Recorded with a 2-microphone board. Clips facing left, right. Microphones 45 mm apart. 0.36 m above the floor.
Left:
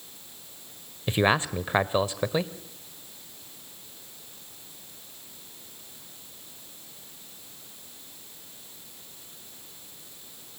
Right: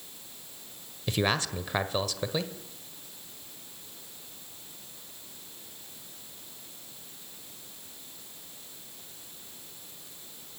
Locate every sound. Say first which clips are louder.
1.1 s a man speaking: left 5 dB; 25° left (ahead or behind), 1.3 m